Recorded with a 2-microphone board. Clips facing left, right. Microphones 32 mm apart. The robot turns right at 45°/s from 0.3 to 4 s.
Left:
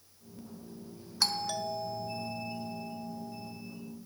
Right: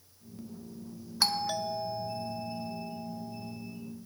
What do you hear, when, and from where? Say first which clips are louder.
1.2 s a doorbell: right 2 dB; 10° right (ahead or behind), 0.9 m; by 3.5 s 20° right (ahead or behind), 0.9 m